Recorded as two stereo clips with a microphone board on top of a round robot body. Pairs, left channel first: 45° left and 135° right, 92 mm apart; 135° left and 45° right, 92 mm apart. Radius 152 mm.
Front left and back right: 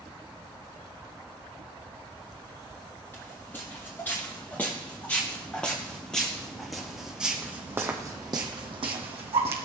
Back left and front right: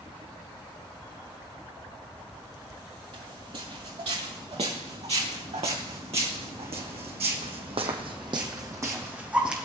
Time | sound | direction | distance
3.1 | footsteps | 20° right | 5 m